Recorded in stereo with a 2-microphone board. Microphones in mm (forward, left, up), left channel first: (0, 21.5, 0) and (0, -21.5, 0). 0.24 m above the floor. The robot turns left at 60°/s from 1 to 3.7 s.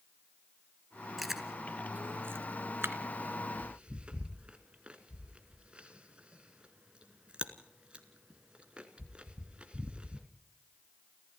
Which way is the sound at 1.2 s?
Centre (ahead or behind).